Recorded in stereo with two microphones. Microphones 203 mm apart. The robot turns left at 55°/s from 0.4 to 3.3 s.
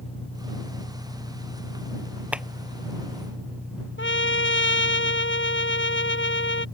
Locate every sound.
0.0 s an engine running: 150° left; by 6.8 s 10° right
2.3 s a clap: 5° right (ahead or behind); by 2.5 s centre (ahead or behind)
4.0 s a trumpet: 75° left (ahead or behind)